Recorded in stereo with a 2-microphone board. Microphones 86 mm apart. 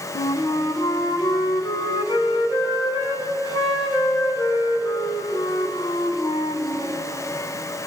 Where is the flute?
75° left (ahead or behind), 2.5 m.